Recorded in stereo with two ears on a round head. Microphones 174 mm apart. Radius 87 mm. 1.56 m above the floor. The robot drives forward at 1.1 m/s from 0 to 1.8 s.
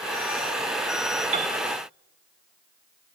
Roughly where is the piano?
Right.